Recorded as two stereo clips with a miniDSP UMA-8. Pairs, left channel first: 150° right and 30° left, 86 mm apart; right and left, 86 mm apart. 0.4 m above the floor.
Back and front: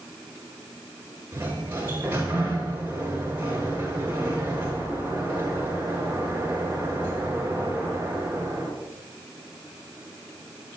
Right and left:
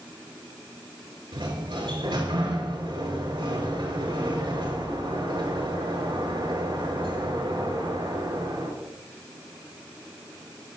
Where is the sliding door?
95° left, 6 m.